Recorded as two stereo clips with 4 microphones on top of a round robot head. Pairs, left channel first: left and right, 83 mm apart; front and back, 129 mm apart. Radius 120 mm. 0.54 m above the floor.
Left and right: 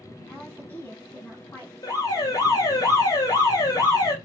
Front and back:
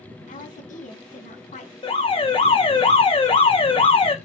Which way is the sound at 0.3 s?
20° left.